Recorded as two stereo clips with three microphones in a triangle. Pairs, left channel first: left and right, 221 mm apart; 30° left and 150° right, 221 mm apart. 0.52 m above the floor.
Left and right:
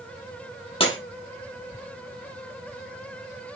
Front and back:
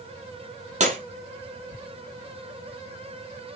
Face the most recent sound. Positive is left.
turn(degrees=155)